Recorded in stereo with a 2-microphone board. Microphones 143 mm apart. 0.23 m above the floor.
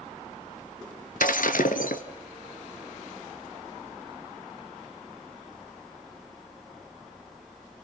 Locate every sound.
1.2 s breaking glass: 75° left (ahead or behind), 1.1 m